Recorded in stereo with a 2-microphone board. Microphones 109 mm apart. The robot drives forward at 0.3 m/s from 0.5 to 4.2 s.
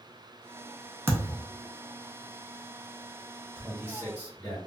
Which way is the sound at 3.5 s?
20° left (ahead or behind).